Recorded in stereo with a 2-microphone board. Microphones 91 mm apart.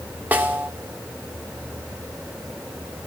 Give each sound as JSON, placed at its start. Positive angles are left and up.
{"t": 0.3, "sound": "a snare drum", "side_deg": -20, "distance_m": 1.2}